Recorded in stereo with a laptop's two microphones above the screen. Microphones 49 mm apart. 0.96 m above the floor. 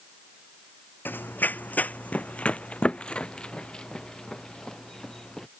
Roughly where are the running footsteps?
Left.